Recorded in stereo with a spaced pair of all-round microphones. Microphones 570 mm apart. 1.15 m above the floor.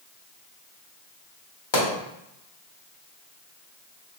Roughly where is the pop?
Left.